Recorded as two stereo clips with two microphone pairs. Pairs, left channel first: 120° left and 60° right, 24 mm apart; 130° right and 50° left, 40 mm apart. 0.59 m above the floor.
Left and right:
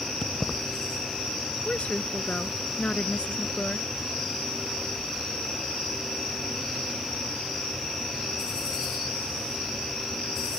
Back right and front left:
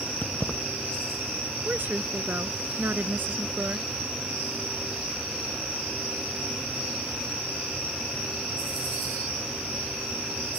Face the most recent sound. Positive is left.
turn(degrees=90)